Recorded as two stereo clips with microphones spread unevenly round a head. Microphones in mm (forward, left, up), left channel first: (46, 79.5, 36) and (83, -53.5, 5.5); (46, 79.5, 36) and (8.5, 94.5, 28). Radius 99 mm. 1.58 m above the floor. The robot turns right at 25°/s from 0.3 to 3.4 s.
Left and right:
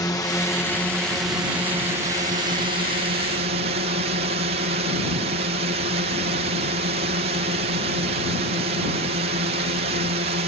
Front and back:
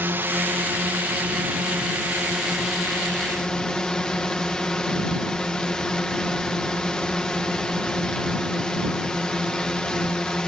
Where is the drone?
Straight behind; by 10.5 s 100° right.